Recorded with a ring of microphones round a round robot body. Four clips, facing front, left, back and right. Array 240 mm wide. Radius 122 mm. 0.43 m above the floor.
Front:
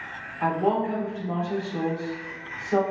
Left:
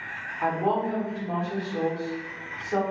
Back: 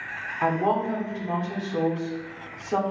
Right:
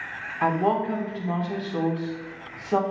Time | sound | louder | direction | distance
0.4 | a woman speaking | right 2 dB, even | 125° right | 0.9 m